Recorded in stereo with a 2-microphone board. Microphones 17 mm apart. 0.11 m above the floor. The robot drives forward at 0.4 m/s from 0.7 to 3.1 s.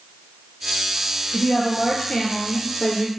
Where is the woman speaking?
50° left (ahead or behind), 2 m; by 3.1 s 55° left (ahead or behind), 1.9 m.